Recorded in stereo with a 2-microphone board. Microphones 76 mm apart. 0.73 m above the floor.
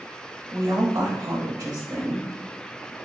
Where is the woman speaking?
55° right (ahead or behind), 1.1 m.